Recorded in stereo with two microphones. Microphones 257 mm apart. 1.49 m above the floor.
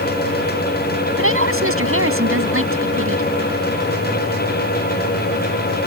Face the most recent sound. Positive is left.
turn(degrees=-55)  # may be behind; listen again after turning